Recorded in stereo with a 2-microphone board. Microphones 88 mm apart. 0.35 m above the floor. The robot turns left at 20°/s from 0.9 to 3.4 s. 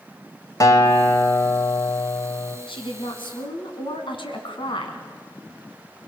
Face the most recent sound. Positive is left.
turn(degrees=70)  # may be behind; listen again after turning